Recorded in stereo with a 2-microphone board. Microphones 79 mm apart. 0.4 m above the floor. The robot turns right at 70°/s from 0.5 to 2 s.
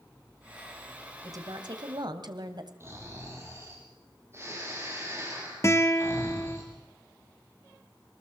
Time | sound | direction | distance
1.2 | a woman speaking | 130° right | 1.9 m
2.8 | snoring | 35° right (ahead or behind) | 5 m
5.6 | a guitar | 35° left (ahead or behind) | 1.6 m